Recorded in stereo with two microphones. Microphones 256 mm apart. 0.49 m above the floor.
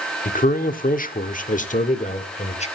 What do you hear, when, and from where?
0.2 s a man speaking: 30° left (ahead or behind), 1.2 m; by 2.7 s 25° left (ahead or behind), 1.8 m